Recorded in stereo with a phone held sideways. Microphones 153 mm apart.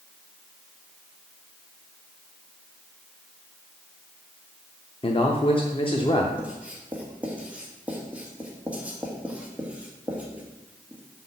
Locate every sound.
5.0 s a man speaking: 35° left (ahead or behind), 0.7 m
6.4 s writing: 10° right (ahead or behind), 1.5 m